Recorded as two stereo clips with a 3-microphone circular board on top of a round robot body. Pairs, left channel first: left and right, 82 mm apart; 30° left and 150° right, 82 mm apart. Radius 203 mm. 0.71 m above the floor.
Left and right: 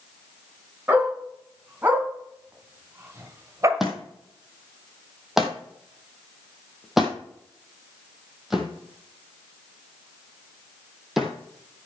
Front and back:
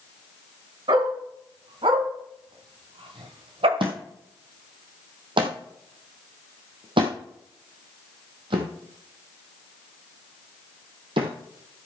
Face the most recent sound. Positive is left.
turn(degrees=-175)